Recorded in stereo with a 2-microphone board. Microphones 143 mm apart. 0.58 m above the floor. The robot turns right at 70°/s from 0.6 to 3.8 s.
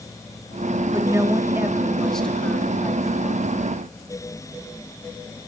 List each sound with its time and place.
0.9 s a woman speaking: 25° right (ahead or behind), 1.1 m; by 3.5 s 25° left (ahead or behind), 1.1 m